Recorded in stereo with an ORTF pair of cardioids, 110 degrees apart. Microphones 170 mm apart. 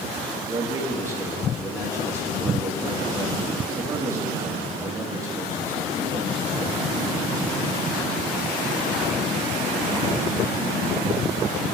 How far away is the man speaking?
About 2 m.